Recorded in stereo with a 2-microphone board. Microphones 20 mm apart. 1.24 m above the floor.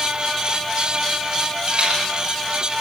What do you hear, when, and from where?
1.7 s a rattle: 65° right (ahead or behind), 9.5 m